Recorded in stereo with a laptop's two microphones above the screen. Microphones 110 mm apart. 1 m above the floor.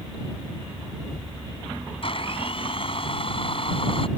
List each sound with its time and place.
2.0 s a blender: 55° left (ahead or behind)